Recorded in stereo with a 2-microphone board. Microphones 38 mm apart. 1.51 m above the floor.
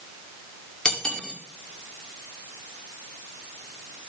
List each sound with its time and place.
0.8 s cutlery clinking: 20° left (ahead or behind), 2.0 m